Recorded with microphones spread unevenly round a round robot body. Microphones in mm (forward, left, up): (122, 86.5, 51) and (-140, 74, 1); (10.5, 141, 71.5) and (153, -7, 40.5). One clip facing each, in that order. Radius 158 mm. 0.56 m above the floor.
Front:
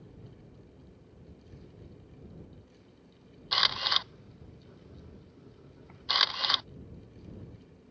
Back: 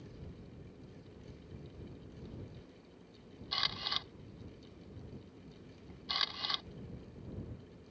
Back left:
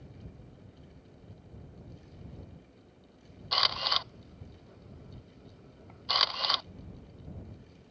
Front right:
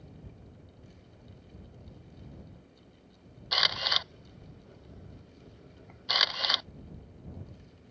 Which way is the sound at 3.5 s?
30° left.